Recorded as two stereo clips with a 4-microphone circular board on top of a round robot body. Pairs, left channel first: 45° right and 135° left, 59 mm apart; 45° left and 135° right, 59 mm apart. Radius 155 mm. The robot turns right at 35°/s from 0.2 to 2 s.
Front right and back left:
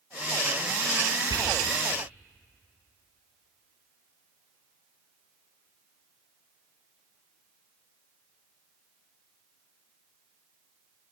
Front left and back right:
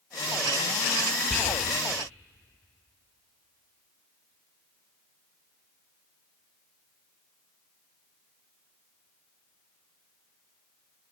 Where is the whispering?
115° left, 1.5 m; by 1.6 s 125° left, 1.5 m.